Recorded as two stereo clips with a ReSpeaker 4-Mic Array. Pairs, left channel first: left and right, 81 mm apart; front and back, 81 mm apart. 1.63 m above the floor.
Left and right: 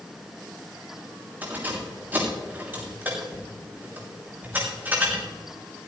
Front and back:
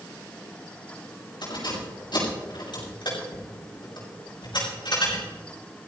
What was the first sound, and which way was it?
Keys jangling, 25° right.